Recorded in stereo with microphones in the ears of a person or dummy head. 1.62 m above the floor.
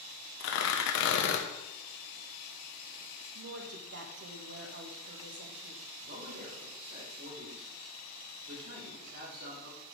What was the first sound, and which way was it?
Tearing paper, 75° left (ahead or behind).